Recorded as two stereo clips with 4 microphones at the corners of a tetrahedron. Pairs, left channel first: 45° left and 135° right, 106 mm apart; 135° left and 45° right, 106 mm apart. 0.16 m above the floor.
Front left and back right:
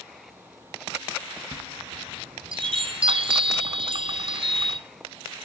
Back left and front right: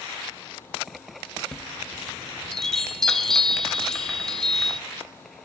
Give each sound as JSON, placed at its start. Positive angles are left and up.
{"t": 1.5, "sound": "a chime", "azimuth_deg": -140, "distance_m": 0.9}